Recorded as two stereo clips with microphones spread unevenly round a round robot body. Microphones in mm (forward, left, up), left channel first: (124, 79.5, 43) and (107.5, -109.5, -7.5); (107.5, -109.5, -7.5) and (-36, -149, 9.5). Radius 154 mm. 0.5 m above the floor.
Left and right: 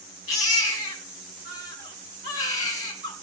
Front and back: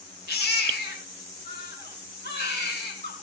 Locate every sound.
0.3 s a baby crying: 135° left, 3.5 m